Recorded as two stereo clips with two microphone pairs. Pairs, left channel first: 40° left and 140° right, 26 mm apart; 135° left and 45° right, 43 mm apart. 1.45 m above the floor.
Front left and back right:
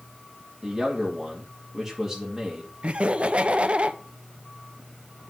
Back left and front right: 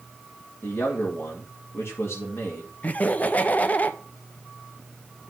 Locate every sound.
0.6 s a man speaking: 135° left, 2.5 m
2.8 s laughter: 175° right, 1.0 m